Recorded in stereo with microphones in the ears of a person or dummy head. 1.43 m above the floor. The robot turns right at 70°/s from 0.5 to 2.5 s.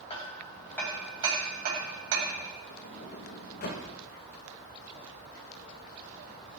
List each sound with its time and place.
0.1 s hammering: 30° left (ahead or behind), 4 m; by 2.4 s 75° right (ahead or behind), 4 m
2.7 s a sliding door: 55° left (ahead or behind), 2.5 m